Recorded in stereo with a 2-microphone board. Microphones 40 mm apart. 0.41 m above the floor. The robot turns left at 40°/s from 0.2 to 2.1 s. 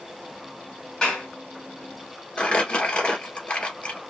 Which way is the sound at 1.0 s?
20° left (ahead or behind).